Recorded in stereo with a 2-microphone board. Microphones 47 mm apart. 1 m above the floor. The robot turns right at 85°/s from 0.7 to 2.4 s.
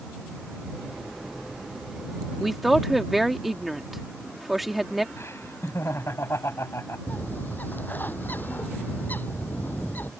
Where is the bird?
40° left (ahead or behind).